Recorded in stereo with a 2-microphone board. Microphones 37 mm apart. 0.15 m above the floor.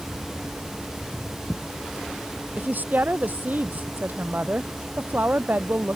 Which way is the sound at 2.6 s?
55° right (ahead or behind).